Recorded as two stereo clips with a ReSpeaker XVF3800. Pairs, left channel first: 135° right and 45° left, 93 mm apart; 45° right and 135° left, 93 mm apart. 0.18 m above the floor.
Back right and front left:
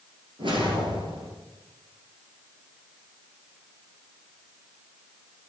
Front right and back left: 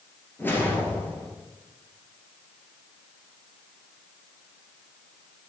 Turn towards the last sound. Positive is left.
turn(degrees=25)